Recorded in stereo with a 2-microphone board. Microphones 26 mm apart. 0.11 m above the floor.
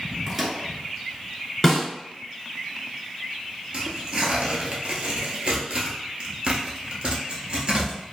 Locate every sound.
0.3 s a microwave: 20° right (ahead or behind), 0.9 m
1.6 s a snare drum: 5° left (ahead or behind), 1.1 m
3.7 s tearing paper: 40° right (ahead or behind), 1.0 m